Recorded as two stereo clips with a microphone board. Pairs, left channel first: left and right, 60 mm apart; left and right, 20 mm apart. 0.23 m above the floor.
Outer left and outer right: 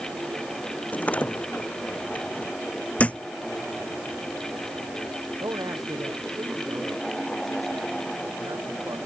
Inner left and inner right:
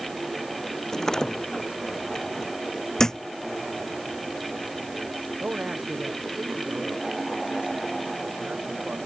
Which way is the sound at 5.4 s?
80° right.